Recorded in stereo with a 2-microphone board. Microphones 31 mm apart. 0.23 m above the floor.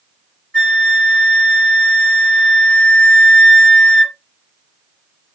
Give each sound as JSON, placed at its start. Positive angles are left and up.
{"t": 0.5, "sound": "a flute", "side_deg": 30, "distance_m": 3.0}